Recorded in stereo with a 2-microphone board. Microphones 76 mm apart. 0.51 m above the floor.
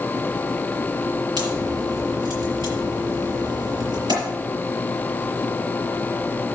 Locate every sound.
1.4 s a crack: 75° right (ahead or behind), 6 m